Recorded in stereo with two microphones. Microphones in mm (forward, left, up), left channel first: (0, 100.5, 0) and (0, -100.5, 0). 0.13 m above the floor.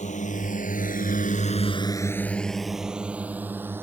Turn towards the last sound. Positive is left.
turn(degrees=-10)  # may be behind; listen again after turning